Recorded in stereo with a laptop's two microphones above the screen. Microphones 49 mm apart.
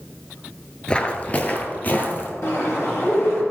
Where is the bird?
65° left (ahead or behind), 3 m.